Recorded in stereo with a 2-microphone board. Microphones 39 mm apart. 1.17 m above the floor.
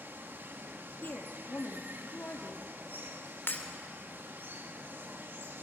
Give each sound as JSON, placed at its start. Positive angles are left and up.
{"t": 0.0, "sound": "running water", "side_deg": -70, "distance_m": 1.6}
{"t": 1.0, "sound": "a woman speaking", "side_deg": 55, "distance_m": 2.5}
{"t": 3.5, "sound": "breaking glass", "side_deg": 75, "distance_m": 2.5}